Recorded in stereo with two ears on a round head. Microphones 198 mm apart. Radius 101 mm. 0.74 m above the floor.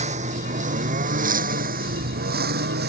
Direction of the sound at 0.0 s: 35° right (ahead or behind).